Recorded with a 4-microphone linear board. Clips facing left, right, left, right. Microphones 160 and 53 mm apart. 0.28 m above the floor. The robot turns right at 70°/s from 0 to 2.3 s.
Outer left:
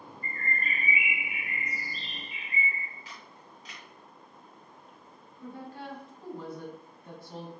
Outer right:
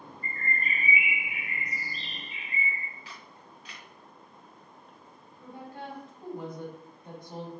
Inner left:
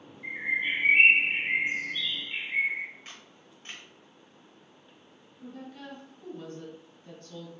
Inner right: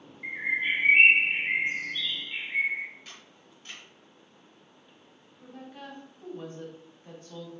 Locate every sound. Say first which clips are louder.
0.2 s a bird: outer right 1 dB, inner right 1 dB; 85° right, 1.2 m; by 2.9 s 60° left, 1.2 m
3.0 s a camera shutter: even, inner left 1 dB; 40° left (ahead or behind), 1.2 m
5.4 s a woman speaking: outer left 1 dB, inner left 1 dB; 20° right (ahead or behind), 1.3 m